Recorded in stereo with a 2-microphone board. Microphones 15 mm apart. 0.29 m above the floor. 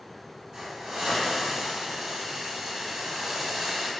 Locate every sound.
0.5 s a hiss: 70° right (ahead or behind), 1.0 m